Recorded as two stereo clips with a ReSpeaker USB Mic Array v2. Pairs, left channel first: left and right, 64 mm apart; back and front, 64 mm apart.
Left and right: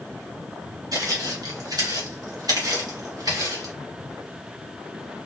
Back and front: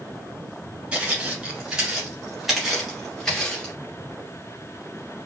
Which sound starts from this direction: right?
Footsteps, at 0.9 s.